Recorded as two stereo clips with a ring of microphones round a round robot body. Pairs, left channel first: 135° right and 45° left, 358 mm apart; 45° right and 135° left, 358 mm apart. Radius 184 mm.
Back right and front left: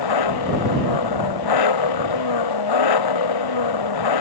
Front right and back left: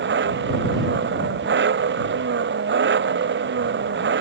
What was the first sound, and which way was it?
An engine running, 165° right.